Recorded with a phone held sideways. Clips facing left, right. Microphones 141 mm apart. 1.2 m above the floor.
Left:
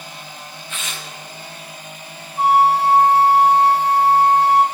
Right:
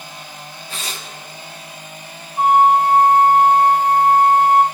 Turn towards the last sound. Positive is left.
turn(degrees=-50)  # may be behind; listen again after turning